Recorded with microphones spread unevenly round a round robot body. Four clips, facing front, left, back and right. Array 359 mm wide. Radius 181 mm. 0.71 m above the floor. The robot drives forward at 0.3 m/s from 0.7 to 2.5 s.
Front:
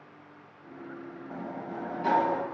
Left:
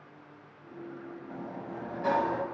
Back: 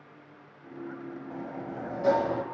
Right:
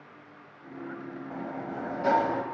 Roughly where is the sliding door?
Ahead right.